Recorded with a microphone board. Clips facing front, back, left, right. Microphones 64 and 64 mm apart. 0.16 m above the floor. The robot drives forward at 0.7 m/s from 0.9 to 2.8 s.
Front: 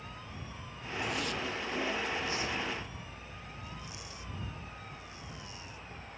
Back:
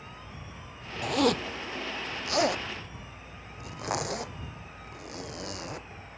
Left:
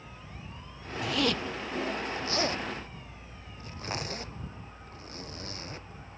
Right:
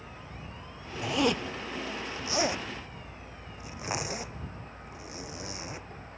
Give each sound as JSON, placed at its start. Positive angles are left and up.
{"t": 1.0, "sound": "a zipper", "azimuth_deg": -155}